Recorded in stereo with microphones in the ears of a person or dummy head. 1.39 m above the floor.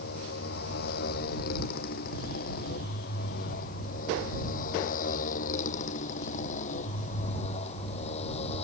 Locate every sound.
0.0 s a motorcycle: 55° left (ahead or behind); by 8.6 s 35° left (ahead or behind)